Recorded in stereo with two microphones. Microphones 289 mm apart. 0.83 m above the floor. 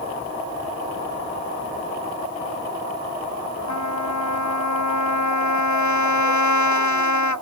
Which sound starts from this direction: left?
A trumpet, at 3.7 s.